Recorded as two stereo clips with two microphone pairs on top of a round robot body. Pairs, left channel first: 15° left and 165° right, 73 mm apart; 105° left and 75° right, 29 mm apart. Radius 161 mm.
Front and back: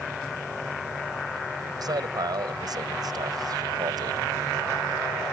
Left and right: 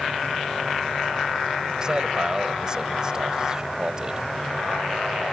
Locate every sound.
1.8 s a man speaking: 140° right